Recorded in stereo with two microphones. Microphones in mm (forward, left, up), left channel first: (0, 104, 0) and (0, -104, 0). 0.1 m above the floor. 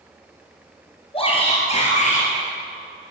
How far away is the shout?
About 2.5 m.